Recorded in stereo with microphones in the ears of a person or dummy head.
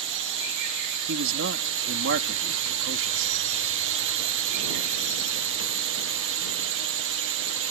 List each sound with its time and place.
0.0 s a drone: 65° right (ahead or behind)
1.1 s a man speaking: 70° right (ahead or behind)